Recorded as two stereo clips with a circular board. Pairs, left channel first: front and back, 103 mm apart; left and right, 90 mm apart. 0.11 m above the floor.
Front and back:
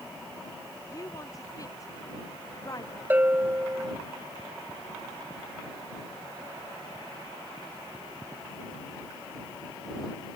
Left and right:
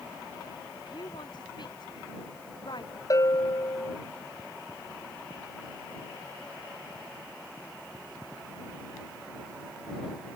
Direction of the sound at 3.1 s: 115° left.